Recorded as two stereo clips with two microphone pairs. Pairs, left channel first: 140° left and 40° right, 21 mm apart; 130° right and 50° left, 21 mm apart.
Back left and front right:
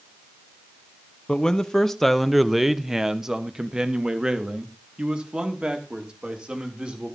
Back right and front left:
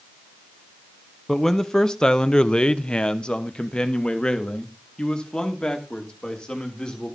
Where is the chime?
I don't hear a chime.